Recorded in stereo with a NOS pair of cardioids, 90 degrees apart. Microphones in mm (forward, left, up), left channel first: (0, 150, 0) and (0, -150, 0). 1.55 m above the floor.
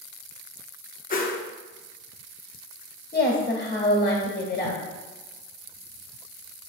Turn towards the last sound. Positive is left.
turn(degrees=30)